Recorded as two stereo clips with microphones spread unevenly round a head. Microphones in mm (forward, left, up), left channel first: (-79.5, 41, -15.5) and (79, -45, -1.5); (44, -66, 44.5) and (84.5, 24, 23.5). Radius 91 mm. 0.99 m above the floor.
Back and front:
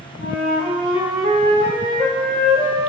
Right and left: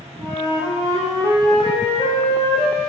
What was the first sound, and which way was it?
A flute, 60° right.